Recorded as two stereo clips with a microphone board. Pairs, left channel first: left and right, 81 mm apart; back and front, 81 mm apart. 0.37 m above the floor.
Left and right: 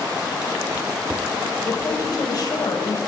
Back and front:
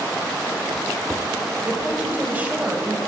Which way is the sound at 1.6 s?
70° left.